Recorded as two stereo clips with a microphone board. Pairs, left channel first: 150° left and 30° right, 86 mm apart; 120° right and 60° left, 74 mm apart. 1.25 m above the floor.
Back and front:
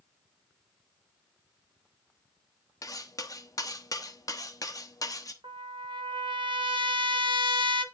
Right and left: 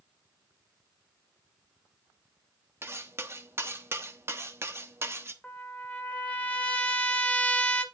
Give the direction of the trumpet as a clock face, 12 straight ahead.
2 o'clock.